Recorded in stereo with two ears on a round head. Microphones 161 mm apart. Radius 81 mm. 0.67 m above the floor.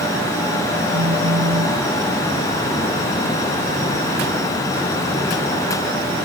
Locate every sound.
0.9 s a phone buzzing: 85° right